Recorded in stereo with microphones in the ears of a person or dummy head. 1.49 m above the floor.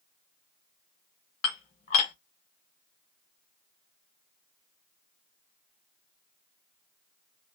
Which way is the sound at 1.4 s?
40° left (ahead or behind).